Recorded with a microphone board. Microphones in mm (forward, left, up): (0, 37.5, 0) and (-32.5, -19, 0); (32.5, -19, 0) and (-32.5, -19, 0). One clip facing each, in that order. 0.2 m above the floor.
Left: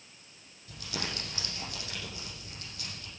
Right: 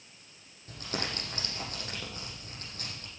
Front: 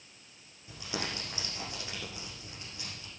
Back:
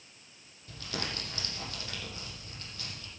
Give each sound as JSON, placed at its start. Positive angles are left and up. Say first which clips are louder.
{"t": 0.7, "sound": "crumpling", "louder": "right 2 dB, front 1 dB", "azimuth_deg": -70, "distance_m": 7.5}